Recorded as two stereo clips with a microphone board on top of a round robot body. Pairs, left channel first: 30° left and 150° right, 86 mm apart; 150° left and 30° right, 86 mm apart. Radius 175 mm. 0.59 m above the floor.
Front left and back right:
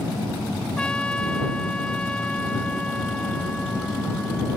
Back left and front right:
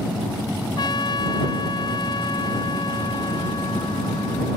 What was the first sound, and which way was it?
A trumpet, 110° left.